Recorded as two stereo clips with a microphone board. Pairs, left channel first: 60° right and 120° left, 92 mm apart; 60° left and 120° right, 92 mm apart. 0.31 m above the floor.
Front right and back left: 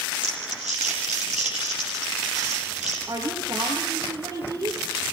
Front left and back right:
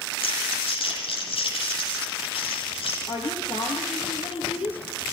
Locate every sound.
0.2 s crumpling: 40° left, 9.5 m
3.1 s a woman speaking: 70° left, 6 m